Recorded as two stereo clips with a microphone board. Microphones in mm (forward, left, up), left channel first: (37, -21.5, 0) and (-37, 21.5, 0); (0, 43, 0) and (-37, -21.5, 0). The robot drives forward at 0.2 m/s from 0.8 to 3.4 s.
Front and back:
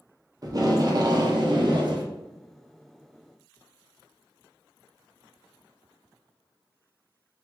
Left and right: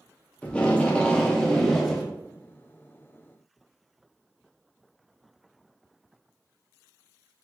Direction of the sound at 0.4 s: 130° left.